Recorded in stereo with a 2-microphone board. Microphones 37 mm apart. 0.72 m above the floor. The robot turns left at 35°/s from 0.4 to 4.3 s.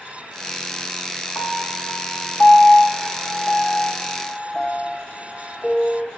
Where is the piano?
55° left (ahead or behind), 1.4 m; by 6.1 s 15° left (ahead or behind), 1.4 m.